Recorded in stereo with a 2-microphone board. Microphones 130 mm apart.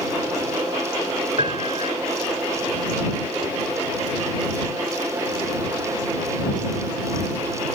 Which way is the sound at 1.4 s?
50° right (ahead or behind).